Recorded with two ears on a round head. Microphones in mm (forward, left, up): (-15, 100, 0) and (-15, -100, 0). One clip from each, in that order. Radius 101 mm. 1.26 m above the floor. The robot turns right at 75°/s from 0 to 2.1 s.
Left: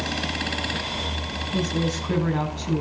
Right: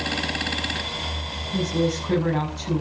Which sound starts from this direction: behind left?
A woman speaking, at 1.5 s.